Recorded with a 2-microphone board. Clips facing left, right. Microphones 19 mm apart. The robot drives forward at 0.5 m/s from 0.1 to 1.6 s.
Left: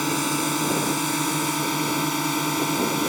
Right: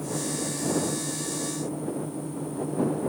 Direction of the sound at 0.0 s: 55° left (ahead or behind).